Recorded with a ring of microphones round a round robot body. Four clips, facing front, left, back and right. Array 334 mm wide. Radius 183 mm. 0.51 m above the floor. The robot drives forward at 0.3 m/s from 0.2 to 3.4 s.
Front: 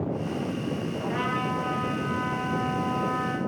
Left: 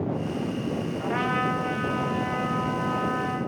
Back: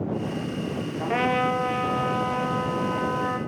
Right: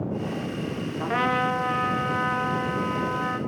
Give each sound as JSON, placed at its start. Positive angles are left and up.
{"t": 1.0, "sound": "a trumpet", "azimuth_deg": -145, "distance_m": 0.8}